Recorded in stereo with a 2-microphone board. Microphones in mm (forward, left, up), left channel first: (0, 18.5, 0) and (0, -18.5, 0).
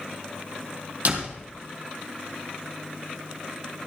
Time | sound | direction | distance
1.1 | a door slam | 50° right (ahead or behind) | 3 m